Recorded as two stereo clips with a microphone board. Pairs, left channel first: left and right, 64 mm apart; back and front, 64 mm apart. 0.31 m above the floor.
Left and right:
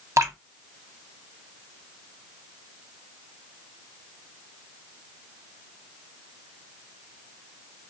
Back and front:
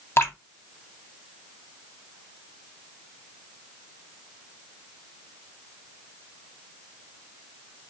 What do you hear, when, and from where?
0.2 s dripping: 130° right, 0.7 m